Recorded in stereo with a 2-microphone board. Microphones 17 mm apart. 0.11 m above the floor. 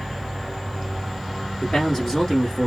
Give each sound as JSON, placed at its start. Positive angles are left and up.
{"t": 1.6, "sound": "a man speaking", "side_deg": 30, "distance_m": 1.6}